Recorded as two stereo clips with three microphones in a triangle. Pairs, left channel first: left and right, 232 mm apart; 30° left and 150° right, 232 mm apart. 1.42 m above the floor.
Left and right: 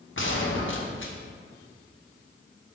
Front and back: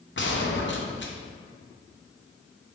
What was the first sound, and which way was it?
A gunshot, 60° left.